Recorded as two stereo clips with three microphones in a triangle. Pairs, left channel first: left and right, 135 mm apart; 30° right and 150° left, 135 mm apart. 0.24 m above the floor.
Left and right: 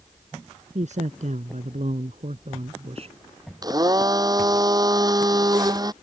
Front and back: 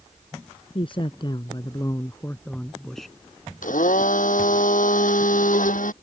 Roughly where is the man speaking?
Right.